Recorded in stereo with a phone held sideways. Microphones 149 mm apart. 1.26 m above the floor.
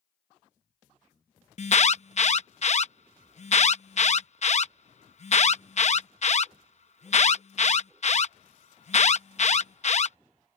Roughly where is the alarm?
Left.